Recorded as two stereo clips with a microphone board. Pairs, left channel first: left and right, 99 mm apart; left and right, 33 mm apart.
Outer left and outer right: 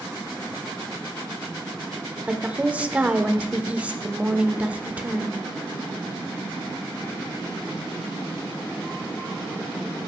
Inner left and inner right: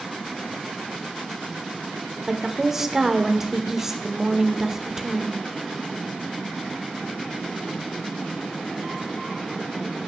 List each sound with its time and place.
2.3 s a woman speaking: 15° right (ahead or behind), 0.7 m